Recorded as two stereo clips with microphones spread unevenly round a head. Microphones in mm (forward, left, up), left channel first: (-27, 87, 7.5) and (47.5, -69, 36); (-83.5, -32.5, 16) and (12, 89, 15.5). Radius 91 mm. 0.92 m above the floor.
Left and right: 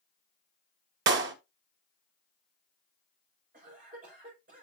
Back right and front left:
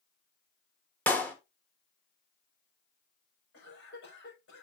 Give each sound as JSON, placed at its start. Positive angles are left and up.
{"t": 1.1, "sound": "a clap", "azimuth_deg": -50, "distance_m": 1.3}
{"t": 3.5, "sound": "a cough", "azimuth_deg": -115, "distance_m": 5.5}